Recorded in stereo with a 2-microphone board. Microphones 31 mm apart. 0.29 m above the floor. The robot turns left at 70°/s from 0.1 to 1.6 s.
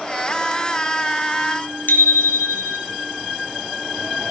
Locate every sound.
1.9 s a bicycle bell: 70° left (ahead or behind), 2.5 m